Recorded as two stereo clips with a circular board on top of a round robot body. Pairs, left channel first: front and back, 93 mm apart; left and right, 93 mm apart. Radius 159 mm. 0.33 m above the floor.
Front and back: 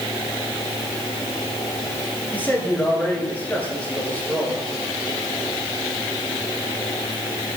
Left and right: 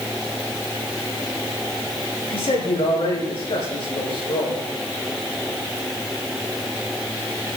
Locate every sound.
2.3 s a man speaking: 75° left, 9.5 m